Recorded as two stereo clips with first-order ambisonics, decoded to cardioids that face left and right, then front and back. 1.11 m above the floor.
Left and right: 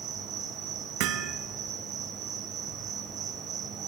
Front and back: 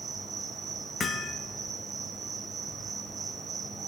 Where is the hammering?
70° right, 0.8 m.